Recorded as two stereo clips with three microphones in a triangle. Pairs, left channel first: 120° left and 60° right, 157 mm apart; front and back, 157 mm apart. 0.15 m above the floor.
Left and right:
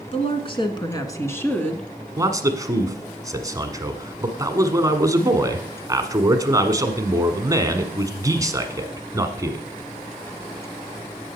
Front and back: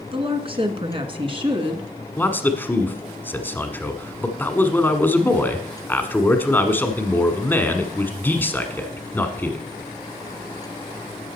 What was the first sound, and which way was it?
A woman speaking, 145° left.